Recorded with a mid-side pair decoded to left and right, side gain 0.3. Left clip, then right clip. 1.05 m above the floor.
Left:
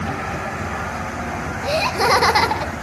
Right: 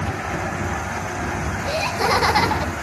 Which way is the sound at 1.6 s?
65° left.